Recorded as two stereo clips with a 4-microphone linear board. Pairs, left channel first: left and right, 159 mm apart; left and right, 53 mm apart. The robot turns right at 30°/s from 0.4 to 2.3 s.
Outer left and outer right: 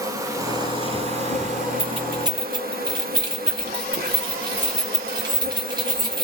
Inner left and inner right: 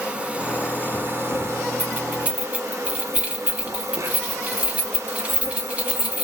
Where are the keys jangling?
35° right (ahead or behind), 1.4 m; by 6.2 s 25° right (ahead or behind), 1.4 m.